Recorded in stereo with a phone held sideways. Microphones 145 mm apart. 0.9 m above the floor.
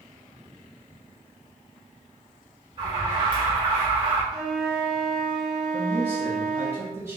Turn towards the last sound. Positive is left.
turn(degrees=-20)  # may be behind; listen again after turning